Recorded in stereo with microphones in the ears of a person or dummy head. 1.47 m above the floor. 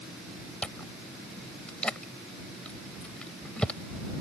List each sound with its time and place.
0.6 s chewing: 5° left (ahead or behind)